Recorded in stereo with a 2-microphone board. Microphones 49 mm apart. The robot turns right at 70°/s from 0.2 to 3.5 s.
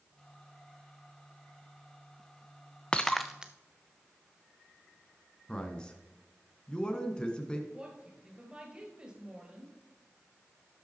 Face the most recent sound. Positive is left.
turn(degrees=-20)  # may be behind; listen again after turning